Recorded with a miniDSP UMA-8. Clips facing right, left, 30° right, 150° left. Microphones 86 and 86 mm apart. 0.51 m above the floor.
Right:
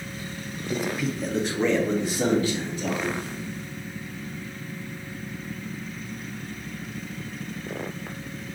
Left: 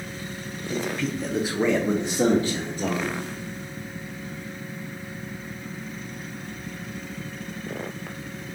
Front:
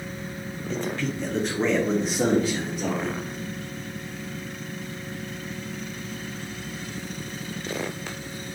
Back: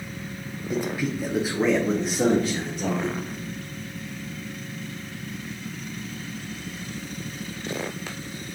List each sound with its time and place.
0.7 s a man speaking: 150° right, 0.9 m; by 3.2 s 50° left, 1.3 m